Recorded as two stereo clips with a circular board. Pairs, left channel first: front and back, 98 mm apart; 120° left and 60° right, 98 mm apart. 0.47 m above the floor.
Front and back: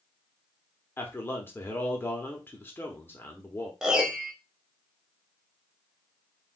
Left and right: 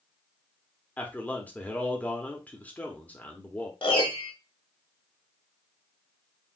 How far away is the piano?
About 1.1 m.